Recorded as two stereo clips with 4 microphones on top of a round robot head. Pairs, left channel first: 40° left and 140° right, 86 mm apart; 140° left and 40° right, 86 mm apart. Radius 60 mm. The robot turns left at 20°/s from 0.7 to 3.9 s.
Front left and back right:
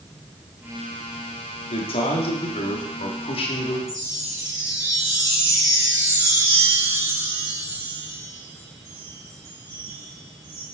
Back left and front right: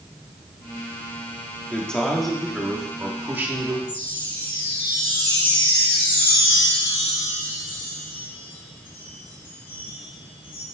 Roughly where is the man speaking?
Ahead left.